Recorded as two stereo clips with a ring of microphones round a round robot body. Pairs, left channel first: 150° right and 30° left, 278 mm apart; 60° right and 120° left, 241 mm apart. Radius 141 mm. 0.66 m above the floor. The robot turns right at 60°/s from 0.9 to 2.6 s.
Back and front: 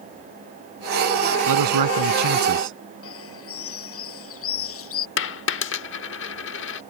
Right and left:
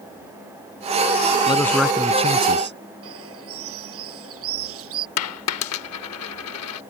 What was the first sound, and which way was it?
A man speaking, 10° left.